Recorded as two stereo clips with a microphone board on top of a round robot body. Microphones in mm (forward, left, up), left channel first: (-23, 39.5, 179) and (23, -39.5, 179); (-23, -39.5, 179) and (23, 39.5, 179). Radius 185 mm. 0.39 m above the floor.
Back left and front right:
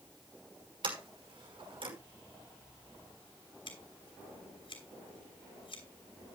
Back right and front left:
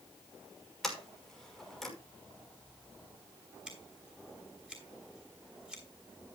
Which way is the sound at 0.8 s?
35° right.